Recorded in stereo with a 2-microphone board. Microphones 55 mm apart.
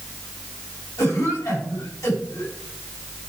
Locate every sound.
1.0 s a cough: 80° left, 7.5 m